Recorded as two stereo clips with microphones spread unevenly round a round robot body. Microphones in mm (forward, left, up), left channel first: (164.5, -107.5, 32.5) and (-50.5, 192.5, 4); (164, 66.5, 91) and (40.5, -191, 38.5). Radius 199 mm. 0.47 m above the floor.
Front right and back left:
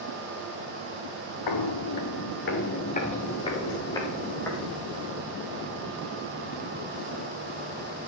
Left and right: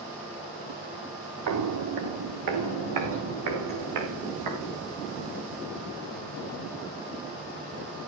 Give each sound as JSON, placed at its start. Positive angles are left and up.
{"t": 1.5, "sound": "footsteps", "azimuth_deg": -85, "distance_m": 1.4}